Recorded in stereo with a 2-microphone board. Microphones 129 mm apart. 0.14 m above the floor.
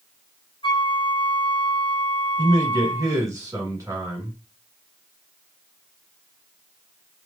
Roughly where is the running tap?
No running tap in this recording.